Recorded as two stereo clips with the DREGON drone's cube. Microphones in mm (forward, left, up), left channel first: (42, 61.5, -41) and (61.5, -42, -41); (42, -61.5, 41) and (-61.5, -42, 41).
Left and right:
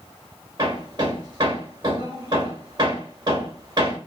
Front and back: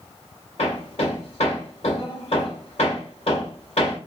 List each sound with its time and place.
0.6 s hammering: 30° right, 1.7 m